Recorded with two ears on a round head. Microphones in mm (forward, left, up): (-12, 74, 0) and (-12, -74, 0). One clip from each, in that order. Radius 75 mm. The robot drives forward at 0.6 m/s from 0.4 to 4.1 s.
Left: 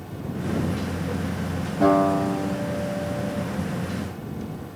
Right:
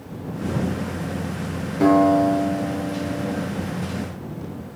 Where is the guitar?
80° right, 10 m; by 3.5 s 75° right (ahead or behind), 10 m.